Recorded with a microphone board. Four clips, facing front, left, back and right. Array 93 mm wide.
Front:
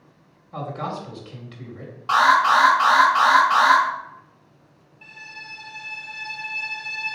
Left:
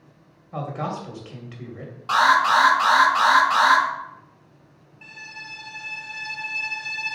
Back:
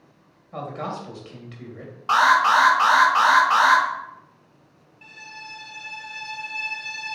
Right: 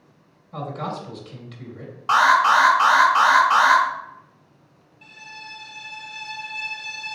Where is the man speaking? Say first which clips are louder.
Left 1 dB, front 1 dB; 105° left, 1.3 m.